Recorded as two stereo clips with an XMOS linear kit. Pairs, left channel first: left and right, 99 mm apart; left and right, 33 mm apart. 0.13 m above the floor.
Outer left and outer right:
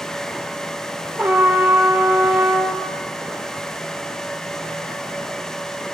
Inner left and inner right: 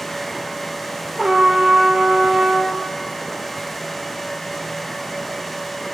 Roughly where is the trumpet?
Centre.